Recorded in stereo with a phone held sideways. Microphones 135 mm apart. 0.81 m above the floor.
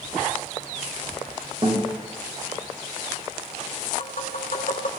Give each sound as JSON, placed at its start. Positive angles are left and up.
{"t": 1.6, "sound": "a guitar", "side_deg": -45, "distance_m": 4.5}
{"t": 4.0, "sound": "tapping", "side_deg": 70, "distance_m": 3.0}